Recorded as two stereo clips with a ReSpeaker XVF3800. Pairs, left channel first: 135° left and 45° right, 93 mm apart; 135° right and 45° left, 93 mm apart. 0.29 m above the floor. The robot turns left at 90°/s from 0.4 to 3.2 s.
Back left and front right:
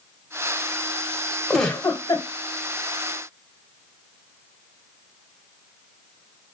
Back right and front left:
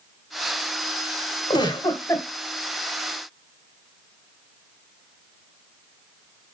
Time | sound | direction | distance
1.5 | a giggle | 130° right | 1.7 m